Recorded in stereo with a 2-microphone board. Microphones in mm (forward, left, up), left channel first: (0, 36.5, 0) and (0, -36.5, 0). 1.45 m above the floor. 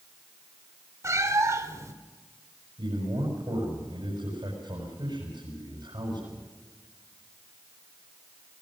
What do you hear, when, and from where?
1.0 s a cat meowing: 40° right (ahead or behind), 2 m
2.8 s a man speaking: 70° right (ahead or behind), 7.5 m